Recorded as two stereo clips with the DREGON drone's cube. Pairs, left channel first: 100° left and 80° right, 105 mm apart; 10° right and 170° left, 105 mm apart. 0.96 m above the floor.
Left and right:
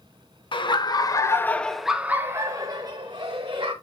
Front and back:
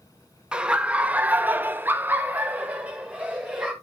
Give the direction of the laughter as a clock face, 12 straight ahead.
9 o'clock.